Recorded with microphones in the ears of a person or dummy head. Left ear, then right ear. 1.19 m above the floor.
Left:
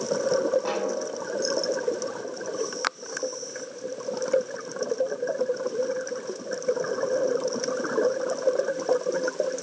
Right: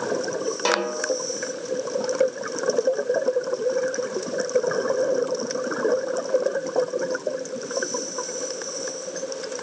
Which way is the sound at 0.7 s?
80° right.